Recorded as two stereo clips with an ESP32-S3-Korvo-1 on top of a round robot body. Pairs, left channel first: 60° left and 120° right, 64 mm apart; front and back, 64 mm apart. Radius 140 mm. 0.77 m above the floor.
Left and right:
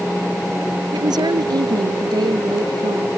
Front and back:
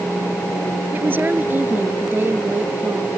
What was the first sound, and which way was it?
A woman speaking, 120° right.